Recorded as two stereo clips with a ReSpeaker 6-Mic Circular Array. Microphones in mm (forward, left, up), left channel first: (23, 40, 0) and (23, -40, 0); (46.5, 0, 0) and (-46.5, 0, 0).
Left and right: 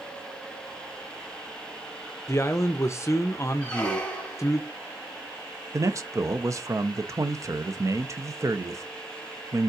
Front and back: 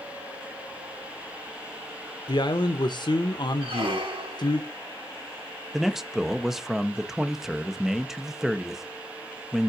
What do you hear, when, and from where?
2.3 s a man speaking: 35° left, 0.6 m
3.6 s a squeak: 165° left, 1.4 m
5.7 s a man speaking: 100° right, 0.7 m